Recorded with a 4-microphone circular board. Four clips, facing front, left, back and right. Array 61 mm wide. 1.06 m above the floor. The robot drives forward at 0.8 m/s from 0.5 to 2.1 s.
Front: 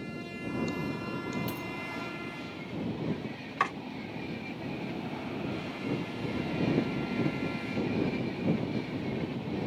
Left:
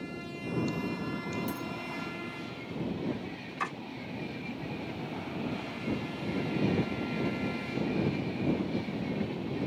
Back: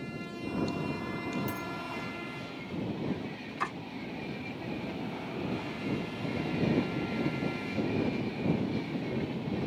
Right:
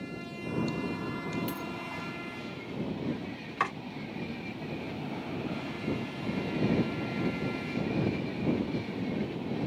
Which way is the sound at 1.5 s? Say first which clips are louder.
Even, even; 40° right.